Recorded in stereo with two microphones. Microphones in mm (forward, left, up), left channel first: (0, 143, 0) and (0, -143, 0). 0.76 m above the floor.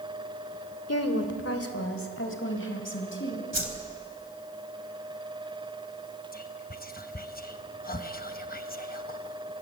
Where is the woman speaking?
60° left (ahead or behind), 2.5 m; by 3.4 s 45° left (ahead or behind), 5 m.